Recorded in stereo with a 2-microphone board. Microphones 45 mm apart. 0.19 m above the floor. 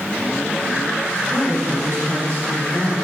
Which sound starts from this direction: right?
A woman speaking, at 1.3 s.